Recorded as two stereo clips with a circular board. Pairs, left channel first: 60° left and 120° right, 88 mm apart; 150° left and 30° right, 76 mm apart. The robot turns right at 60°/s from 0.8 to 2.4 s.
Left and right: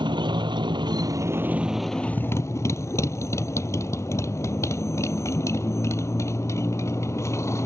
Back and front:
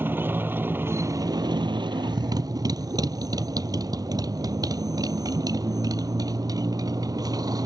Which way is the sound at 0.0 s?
90° right.